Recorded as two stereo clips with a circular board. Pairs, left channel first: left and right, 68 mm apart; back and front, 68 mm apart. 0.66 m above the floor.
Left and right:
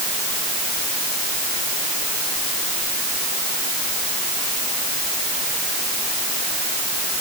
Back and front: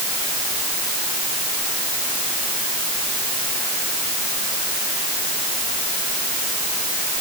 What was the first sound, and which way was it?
Only background noise.